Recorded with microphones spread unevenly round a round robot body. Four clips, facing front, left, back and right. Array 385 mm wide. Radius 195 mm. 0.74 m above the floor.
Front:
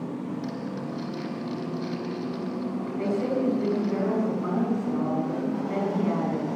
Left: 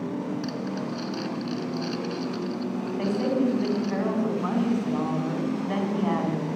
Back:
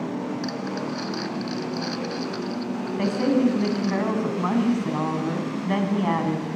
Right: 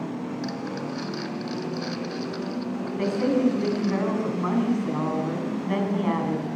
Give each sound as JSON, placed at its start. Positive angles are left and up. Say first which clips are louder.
{"t": 0.4, "sound": "crumpling", "louder": "even, back 4 dB", "azimuth_deg": -165, "distance_m": 2.5}
{"t": 3.0, "sound": "a woman speaking", "louder": "right 3 dB, back 5 dB", "azimuth_deg": -170, "distance_m": 7.5}